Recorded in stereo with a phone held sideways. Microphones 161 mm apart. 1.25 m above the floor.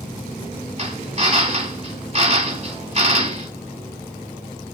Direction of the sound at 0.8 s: 40° right (ahead or behind).